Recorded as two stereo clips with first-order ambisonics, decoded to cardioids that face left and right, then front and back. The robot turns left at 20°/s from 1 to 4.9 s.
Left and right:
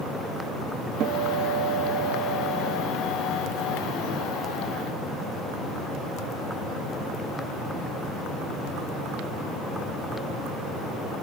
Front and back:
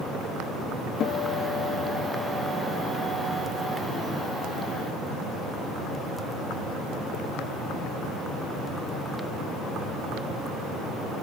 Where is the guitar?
50° right, 1.2 m; by 2.9 s 90° right, 1.2 m.